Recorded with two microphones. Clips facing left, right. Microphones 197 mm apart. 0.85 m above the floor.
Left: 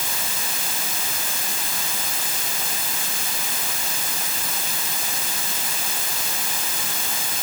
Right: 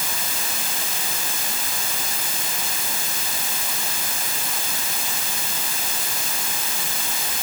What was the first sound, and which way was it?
Only background noise.